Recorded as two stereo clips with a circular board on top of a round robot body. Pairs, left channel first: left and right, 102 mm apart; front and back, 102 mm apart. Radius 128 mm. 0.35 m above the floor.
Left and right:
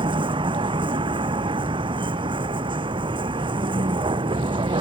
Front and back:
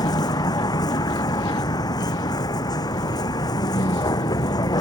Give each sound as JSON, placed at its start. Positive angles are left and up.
{"t": 0.0, "sound": "a vehicle", "azimuth_deg": -50}